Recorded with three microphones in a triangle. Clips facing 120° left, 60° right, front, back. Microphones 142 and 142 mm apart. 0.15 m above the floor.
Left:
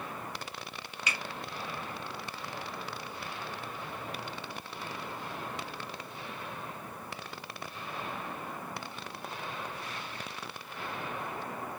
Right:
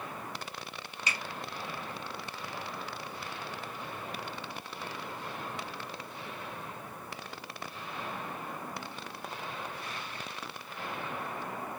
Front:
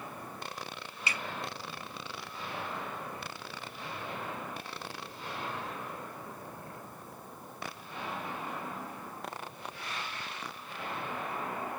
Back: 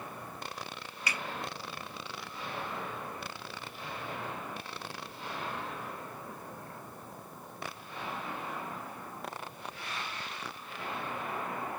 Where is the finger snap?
40° right, 1.0 m.